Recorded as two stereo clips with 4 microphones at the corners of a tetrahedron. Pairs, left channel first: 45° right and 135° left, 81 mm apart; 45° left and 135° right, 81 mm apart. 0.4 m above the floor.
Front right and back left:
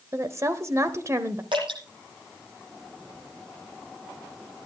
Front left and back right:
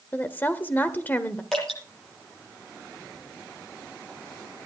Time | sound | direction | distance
0.1 | a woman speaking | 105° left | 1.1 m
1.5 | dripping | 130° left | 9.5 m